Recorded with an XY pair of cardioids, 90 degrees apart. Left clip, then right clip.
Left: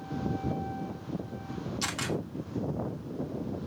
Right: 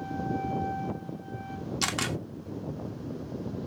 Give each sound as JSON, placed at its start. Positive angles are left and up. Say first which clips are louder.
{"t": 1.8, "sound": "a camera shutter", "louder": "right 3 dB", "azimuth_deg": -55, "distance_m": 1.2}